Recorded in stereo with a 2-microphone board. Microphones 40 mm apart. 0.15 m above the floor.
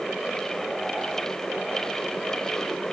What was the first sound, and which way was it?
Only background noise.